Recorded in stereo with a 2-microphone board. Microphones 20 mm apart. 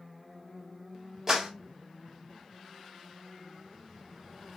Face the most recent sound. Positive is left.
turn(degrees=-25)  # may be behind; listen again after turning